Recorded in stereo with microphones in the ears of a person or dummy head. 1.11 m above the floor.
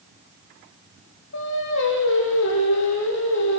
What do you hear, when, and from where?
1.3 s singing: 65° left (ahead or behind), 8 m